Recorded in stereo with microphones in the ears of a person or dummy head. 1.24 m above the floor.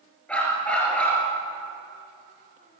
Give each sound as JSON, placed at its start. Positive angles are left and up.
{"t": 0.3, "sound": "a dog barking", "side_deg": 10, "distance_m": 6.5}